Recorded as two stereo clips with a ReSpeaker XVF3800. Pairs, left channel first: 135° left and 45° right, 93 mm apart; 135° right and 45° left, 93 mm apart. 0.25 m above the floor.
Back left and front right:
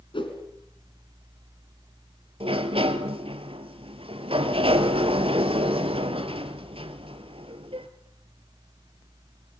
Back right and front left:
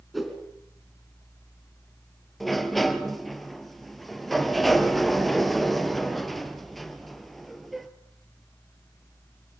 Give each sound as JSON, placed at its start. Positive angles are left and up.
{"t": 0.1, "sound": "a whoosh", "azimuth_deg": 135, "distance_m": 3.0}
{"t": 2.4, "sound": "a sliding door", "azimuth_deg": -45, "distance_m": 1.4}